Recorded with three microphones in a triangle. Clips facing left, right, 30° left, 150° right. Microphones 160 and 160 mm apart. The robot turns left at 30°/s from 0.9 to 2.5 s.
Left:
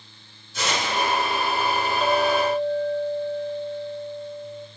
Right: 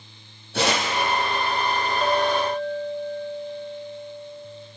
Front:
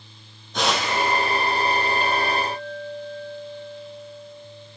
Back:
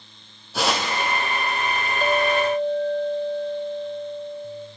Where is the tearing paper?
65° right, 4 m.